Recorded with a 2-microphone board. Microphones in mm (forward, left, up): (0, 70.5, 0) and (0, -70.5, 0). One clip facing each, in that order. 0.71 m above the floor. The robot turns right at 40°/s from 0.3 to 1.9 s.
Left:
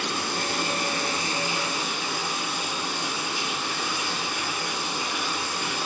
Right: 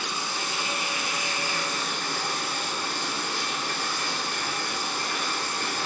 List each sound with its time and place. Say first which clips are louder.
0.0 s running water: left 4 dB; 110° left, 4 m; by 5.9 s 175° left, 4 m